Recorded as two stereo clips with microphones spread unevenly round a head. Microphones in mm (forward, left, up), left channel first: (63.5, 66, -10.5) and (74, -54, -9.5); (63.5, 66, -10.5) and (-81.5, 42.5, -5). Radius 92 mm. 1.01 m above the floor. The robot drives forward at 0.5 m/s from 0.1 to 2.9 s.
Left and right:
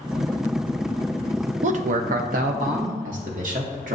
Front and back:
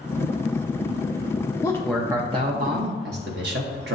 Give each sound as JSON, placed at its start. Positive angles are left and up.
{"t": 1.6, "sound": "a man speaking", "azimuth_deg": -65, "distance_m": 0.5}